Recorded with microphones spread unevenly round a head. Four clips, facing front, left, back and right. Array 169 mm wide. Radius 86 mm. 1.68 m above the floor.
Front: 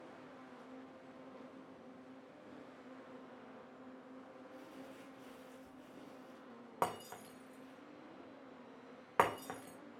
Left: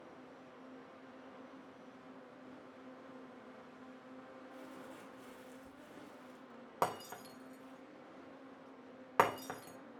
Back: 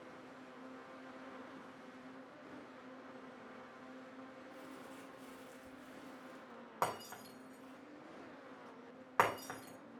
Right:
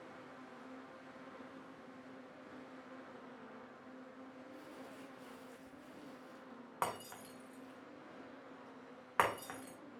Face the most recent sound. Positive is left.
turn(degrees=55)